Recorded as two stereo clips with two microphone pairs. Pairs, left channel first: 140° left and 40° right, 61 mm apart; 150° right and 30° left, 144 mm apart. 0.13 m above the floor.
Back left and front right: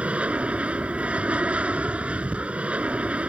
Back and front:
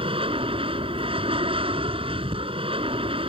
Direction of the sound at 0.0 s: 15° left.